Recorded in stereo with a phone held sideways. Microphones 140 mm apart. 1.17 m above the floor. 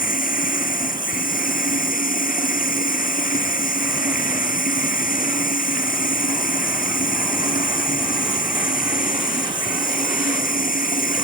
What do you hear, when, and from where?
0.0 s running water: 75° left (ahead or behind)